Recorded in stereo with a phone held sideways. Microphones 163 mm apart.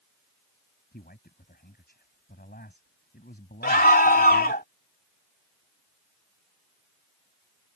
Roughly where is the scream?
Left.